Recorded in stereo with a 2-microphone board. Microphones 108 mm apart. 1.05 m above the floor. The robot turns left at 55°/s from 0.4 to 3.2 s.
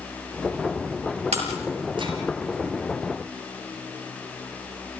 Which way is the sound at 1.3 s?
85° right.